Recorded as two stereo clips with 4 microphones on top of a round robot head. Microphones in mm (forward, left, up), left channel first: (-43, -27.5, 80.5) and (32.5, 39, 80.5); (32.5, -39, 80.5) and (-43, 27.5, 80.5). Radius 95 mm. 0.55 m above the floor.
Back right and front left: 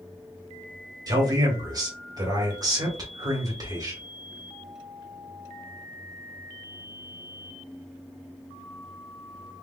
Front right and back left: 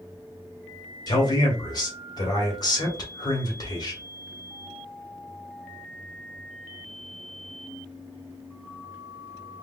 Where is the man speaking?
Straight ahead, 1.9 m.